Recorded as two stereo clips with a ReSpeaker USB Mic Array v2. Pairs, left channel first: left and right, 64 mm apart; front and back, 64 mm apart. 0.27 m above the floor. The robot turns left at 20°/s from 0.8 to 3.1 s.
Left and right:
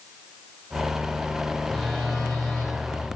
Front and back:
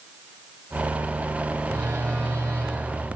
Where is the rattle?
No rattle in this recording.